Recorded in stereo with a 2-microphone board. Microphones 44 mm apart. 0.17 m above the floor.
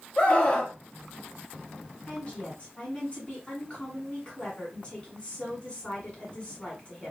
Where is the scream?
30° left (ahead or behind), 1.1 m.